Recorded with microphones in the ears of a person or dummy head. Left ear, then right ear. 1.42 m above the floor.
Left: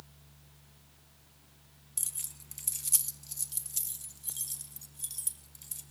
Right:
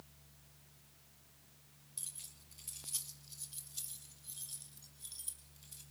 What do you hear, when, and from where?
2.0 s keys jangling: 40° left (ahead or behind), 1.3 m; by 5.8 s 65° left (ahead or behind), 4.5 m